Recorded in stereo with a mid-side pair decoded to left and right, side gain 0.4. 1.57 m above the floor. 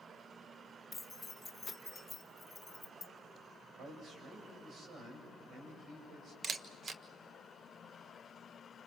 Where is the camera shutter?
45° right, 1.4 m.